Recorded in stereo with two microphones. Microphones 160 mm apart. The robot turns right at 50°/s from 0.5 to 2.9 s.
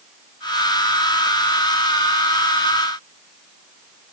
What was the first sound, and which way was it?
Only background noise.